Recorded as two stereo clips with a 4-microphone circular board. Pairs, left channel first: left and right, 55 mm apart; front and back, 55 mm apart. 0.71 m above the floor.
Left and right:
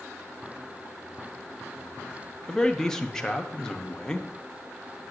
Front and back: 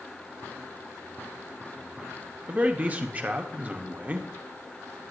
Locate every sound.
2.5 s a man speaking: 160° left, 0.7 m